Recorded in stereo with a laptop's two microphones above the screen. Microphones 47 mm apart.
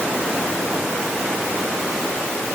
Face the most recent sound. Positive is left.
No sound to turn to.